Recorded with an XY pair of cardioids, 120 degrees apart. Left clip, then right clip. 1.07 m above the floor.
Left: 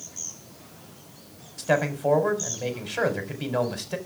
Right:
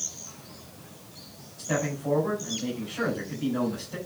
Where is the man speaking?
70° left, 4.5 m.